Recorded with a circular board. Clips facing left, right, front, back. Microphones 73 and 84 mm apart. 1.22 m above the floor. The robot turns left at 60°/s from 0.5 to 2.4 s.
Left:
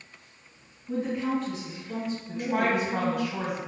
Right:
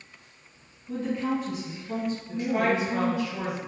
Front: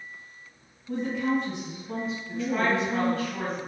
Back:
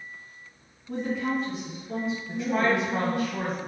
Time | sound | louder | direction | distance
0.9 | a woman speaking | even, front 1 dB | 25° left | 1.7 m
2.3 | a woman speaking | right 1 dB, back 1 dB | 120° left | 1.2 m